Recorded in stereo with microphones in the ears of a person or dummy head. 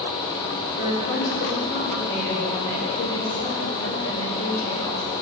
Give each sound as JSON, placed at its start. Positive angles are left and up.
{"t": 0.8, "sound": "a woman speaking", "side_deg": 55, "distance_m": 3.0}